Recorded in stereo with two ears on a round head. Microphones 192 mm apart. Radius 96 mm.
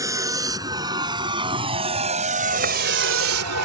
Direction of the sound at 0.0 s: 15° right (ahead or behind).